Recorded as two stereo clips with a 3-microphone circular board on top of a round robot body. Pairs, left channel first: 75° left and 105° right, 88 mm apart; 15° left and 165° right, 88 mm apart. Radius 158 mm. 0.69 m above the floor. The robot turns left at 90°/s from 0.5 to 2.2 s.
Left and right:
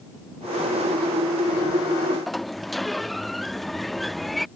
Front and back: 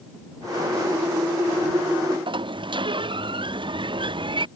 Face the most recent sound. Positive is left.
turn(degrees=165)